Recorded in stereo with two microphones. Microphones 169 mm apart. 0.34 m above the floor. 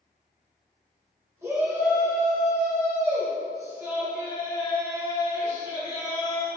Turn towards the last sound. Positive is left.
turn(degrees=-15)  # may be behind; listen again after turning